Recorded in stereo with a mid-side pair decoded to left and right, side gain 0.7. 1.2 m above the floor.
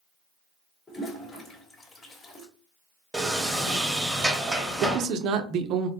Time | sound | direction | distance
0.9 | a toilet flushing | 25° left | 1.1 m
3.1 | a sliding door | 5° right | 1.0 m
4.8 | a man speaking | 55° right | 0.5 m